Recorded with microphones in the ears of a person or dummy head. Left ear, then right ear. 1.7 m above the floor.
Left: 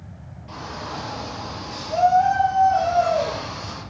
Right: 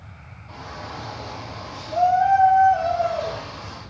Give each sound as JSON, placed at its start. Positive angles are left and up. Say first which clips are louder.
{"t": 0.5, "sound": "a shout", "louder": "left 3 dB", "side_deg": 20, "distance_m": 8.0}